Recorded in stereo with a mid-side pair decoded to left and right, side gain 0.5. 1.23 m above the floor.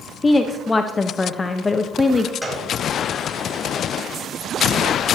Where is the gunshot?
10° right, 4 m.